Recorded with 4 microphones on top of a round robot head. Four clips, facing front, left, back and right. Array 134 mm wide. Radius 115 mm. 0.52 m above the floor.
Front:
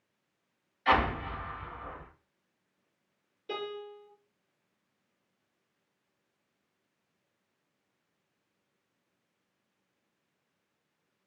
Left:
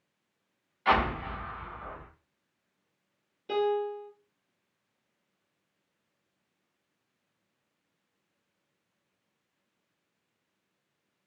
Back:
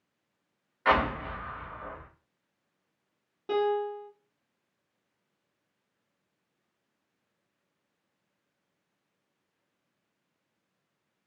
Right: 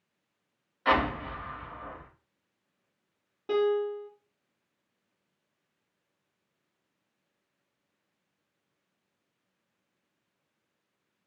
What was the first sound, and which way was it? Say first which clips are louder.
An explosion: even, back 1 dB; 160° right.